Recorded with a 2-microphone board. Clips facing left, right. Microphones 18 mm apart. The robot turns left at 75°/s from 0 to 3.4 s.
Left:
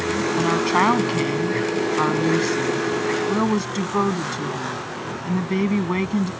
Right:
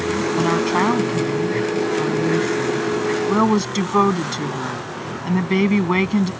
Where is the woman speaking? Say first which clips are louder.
Even; 160° right; by 6.3 s 25° right.